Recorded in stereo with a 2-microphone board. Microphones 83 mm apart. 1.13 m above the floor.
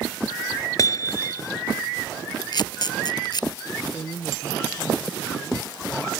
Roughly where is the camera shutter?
Left.